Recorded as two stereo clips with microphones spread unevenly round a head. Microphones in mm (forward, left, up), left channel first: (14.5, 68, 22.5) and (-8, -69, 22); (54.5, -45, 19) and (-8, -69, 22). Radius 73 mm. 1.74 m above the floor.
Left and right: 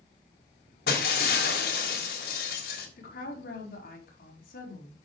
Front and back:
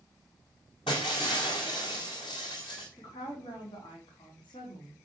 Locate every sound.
0.9 s breaking glass: 65° left, 4 m
3.0 s a woman speaking: 55° left, 5 m